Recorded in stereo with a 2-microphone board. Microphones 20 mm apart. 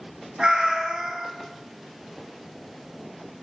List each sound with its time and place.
0.4 s a cat meowing: 40° right (ahead or behind), 0.6 m